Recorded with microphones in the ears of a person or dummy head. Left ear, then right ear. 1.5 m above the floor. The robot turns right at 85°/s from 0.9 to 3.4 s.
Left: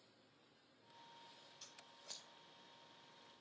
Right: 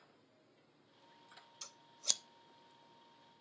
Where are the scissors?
40° right (ahead or behind), 0.5 m; by 2.2 s 90° right, 0.5 m.